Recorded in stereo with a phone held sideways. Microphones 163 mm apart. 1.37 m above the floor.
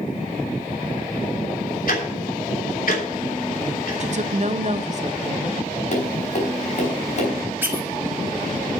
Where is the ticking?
70° left (ahead or behind), 3 m.